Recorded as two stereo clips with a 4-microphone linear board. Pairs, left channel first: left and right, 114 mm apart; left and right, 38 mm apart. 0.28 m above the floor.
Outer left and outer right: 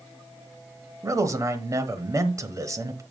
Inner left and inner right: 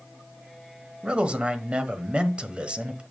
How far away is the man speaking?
About 1.0 m.